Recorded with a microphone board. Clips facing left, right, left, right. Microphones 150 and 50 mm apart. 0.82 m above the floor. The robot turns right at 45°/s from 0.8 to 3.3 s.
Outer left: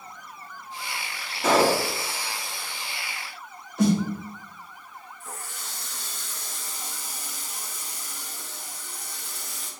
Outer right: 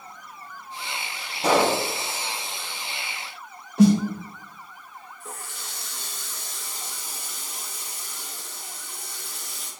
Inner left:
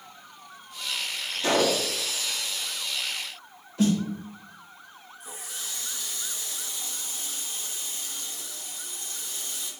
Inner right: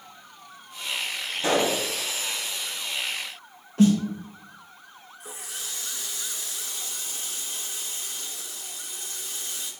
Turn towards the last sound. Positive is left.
turn(degrees=-90)